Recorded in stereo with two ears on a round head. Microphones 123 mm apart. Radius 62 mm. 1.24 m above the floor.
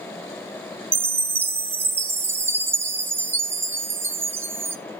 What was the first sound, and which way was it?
A chime, 15° right (ahead or behind).